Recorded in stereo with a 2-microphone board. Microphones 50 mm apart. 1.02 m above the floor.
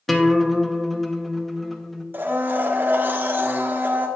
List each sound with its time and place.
0.1 s a guitar: centre (ahead or behind), 0.7 m
2.1 s a blender: 40° right (ahead or behind), 1.1 m